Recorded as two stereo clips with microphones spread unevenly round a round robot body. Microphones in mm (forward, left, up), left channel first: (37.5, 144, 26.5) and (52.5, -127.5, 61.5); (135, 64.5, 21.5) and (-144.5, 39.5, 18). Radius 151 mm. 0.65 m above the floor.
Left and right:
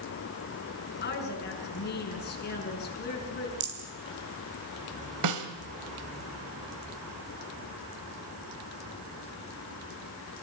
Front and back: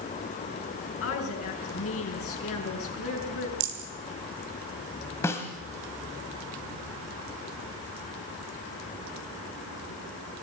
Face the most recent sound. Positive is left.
turn(degrees=-75)